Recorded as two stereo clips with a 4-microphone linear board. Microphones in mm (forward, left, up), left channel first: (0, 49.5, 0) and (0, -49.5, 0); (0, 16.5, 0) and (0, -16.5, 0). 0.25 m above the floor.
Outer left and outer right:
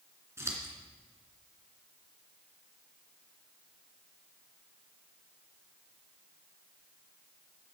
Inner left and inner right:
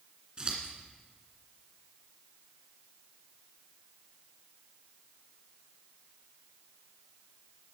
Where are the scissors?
30° right (ahead or behind), 2.5 m.